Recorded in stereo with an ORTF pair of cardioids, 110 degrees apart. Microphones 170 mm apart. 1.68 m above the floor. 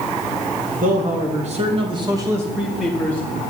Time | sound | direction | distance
0.8 | a man speaking | 55° right | 2 m